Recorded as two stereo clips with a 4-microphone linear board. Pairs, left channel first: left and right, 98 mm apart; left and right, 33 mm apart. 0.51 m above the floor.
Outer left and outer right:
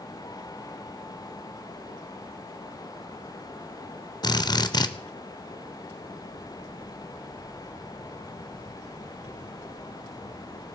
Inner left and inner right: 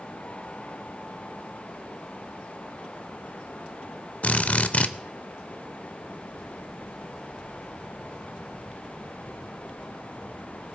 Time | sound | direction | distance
4.2 | a drill | 45° left (ahead or behind) | 0.7 m